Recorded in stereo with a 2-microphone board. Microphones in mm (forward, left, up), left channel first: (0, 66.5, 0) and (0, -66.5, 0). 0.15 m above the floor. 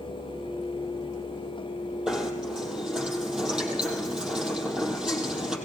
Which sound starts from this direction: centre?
Knocking, at 2.1 s.